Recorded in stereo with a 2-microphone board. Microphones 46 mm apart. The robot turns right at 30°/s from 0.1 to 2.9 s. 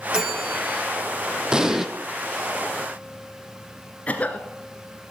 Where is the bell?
15° right (ahead or behind), 5 m; by 0.9 s 5° left (ahead or behind), 5 m.